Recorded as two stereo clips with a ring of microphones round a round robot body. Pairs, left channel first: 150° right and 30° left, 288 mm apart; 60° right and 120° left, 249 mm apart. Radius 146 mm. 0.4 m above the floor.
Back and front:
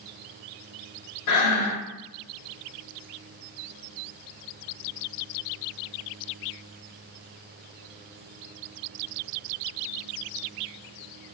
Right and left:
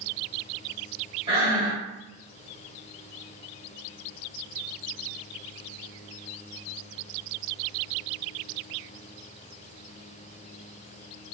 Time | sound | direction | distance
1.3 | breathing | 170° right | 0.8 m